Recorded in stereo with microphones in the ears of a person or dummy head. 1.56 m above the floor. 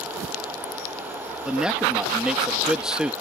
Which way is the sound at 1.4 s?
Centre (ahead or behind).